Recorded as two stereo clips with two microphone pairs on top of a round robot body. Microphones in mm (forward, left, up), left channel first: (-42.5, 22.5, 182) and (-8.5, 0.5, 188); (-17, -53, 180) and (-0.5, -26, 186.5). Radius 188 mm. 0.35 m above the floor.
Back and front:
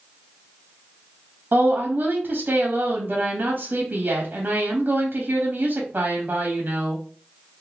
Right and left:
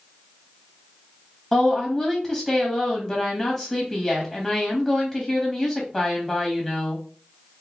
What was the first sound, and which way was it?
A woman speaking, 60° right.